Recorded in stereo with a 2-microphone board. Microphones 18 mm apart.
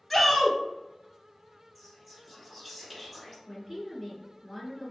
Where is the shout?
5° right (ahead or behind), 1.1 m.